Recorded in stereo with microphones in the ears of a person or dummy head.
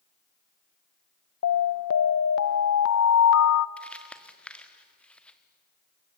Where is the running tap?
I don't hear a running tap.